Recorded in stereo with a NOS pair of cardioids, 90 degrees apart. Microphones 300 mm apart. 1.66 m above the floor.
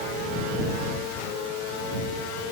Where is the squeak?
I don't hear a squeak.